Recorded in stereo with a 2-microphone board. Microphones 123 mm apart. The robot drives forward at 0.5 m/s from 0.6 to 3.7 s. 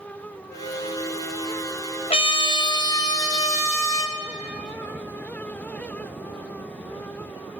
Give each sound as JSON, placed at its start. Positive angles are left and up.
{"t": 0.5, "sound": "a flute", "side_deg": 20, "distance_m": 4.5}
{"t": 2.1, "sound": "a trumpet", "side_deg": 55, "distance_m": 0.6}